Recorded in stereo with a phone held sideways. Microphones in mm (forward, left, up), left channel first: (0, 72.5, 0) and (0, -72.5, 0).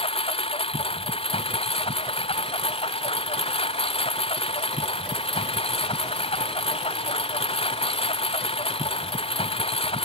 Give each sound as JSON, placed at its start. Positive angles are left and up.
{"t": 0.0, "sound": "a lawn mower", "side_deg": 40}